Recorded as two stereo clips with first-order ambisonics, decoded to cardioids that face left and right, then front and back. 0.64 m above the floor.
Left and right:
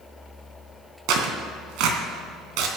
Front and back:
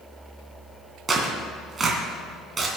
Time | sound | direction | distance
1.1 | tearing paper | 110° right | 2 m